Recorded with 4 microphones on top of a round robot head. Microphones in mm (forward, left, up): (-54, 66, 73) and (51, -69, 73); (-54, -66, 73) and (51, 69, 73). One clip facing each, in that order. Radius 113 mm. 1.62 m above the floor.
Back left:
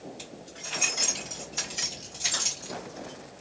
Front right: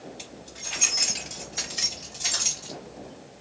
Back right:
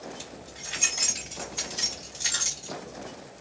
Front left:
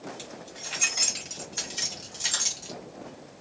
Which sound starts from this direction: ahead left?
Keys jangling, at 0.2 s.